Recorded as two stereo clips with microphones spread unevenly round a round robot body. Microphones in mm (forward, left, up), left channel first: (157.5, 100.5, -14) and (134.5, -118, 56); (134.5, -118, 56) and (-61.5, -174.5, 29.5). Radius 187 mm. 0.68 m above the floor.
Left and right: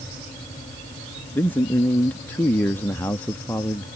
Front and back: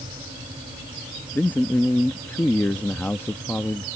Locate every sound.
1.4 s a man speaking: 105° left